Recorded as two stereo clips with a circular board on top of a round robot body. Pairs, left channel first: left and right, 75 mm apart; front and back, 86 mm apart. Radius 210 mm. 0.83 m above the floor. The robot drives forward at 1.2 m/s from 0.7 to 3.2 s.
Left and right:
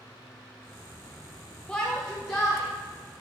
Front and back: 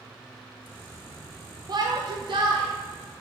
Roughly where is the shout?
Behind.